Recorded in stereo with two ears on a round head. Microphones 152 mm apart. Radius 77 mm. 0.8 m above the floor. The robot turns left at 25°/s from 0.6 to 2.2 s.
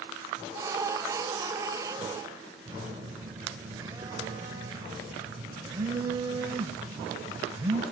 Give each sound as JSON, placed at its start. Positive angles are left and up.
{"t": 2.6, "sound": "a phone buzzing", "side_deg": -20, "distance_m": 2.5}